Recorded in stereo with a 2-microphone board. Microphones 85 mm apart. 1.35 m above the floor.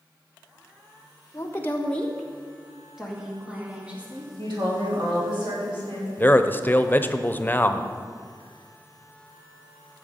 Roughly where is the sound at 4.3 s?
Right.